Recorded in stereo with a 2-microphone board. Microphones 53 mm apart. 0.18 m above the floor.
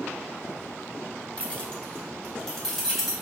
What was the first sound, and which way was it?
Keys jangling, 25° left (ahead or behind).